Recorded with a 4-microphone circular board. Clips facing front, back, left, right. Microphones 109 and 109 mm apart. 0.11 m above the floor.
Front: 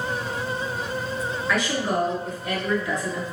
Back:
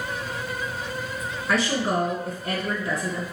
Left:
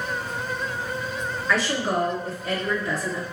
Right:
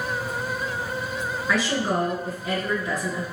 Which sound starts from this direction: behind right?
A woman speaking, at 1.5 s.